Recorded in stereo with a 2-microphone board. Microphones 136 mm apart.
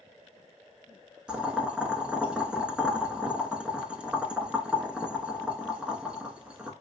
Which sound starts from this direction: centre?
Boiling, at 1.3 s.